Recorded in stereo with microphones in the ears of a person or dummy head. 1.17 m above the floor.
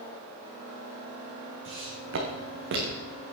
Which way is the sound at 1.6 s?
75° right (ahead or behind).